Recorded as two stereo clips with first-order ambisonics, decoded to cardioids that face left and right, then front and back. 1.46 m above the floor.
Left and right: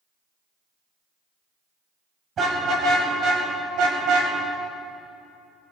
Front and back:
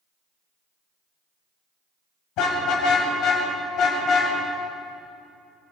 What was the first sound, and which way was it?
A car horn, 30° right.